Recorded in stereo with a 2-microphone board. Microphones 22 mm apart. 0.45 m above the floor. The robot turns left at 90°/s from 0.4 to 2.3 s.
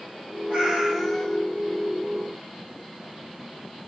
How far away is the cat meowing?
About 1.3 m.